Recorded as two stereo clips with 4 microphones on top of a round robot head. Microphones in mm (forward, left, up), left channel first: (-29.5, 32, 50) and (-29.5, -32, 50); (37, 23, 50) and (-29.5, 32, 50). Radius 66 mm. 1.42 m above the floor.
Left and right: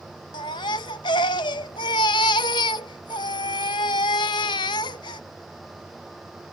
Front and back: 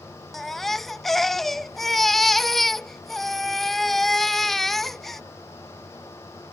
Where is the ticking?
I don't hear ticking.